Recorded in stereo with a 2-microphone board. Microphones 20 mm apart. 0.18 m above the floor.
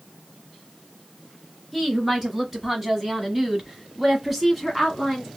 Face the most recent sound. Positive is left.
turn(degrees=-5)  # may be behind; listen again after turning